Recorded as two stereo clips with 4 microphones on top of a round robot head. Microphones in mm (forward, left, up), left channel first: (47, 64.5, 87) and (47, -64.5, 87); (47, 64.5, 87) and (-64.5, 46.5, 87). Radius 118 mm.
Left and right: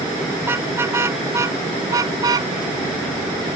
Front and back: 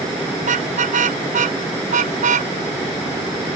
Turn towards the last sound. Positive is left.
turn(degrees=-155)